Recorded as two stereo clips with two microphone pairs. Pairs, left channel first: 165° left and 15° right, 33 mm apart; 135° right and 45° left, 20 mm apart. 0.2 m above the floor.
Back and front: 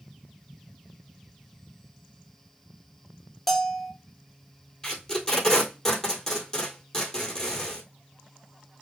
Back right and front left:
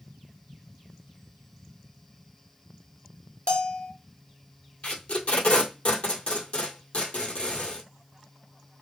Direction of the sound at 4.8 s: 125° right.